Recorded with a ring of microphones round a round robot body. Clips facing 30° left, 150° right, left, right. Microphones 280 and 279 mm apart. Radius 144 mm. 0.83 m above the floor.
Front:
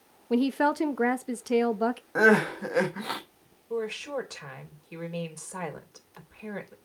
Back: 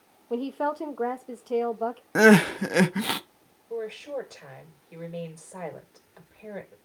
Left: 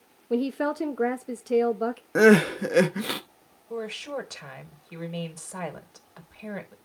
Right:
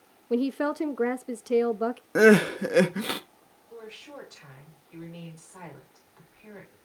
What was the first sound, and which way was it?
A woman speaking, 5° right.